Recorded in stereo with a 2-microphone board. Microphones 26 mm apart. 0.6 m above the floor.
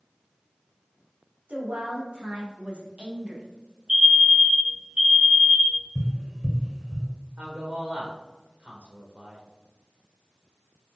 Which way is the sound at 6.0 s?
10° right (ahead or behind).